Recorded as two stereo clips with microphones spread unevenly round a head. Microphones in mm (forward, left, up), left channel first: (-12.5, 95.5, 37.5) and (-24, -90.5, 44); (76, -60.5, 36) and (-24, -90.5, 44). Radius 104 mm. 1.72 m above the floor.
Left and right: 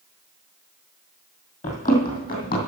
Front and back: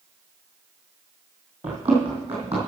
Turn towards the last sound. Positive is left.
turn(degrees=120)